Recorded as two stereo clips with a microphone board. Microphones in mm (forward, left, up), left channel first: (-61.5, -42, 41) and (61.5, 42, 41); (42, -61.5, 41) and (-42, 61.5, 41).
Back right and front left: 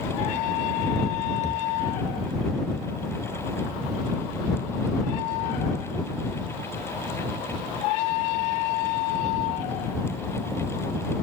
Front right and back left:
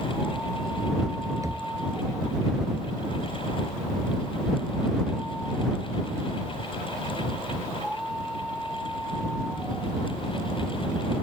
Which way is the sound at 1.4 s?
175° right.